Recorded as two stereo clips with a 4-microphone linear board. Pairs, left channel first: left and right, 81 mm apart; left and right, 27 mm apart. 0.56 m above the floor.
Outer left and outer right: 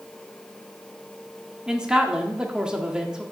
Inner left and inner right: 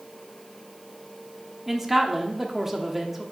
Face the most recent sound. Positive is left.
turn(degrees=-10)  # may be behind; listen again after turning